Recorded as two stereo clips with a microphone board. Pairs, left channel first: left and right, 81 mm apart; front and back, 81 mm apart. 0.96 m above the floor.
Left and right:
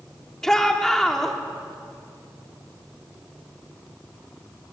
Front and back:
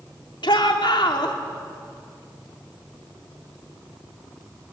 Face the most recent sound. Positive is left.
turn(degrees=5)